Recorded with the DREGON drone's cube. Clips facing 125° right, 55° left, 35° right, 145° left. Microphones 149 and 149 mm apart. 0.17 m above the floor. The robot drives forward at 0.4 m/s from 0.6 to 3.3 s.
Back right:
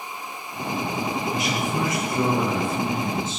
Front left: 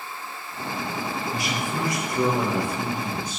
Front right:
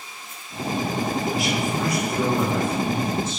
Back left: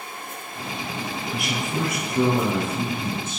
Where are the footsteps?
No footsteps in this recording.